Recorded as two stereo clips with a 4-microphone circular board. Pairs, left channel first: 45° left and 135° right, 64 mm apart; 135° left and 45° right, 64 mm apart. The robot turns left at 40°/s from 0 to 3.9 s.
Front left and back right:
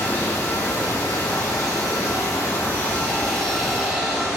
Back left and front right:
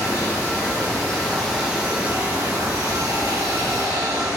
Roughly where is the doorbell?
No doorbell in this recording.